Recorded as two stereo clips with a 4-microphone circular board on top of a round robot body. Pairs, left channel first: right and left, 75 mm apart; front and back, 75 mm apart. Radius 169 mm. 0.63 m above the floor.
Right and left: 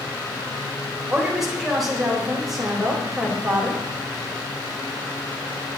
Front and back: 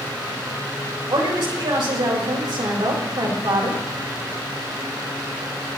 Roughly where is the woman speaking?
Behind.